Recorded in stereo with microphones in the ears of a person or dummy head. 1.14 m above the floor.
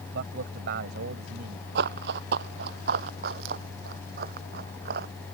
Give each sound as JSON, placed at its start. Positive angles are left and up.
{"t": 0.1, "sound": "a man speaking", "side_deg": -65}
{"t": 1.8, "sound": "running footsteps", "side_deg": -60}